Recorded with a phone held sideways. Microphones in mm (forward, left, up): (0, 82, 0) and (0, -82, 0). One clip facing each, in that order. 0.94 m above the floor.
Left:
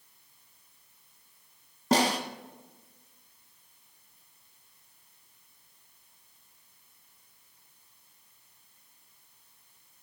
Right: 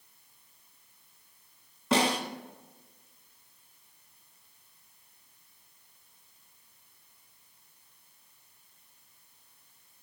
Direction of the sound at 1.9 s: 40° left (ahead or behind).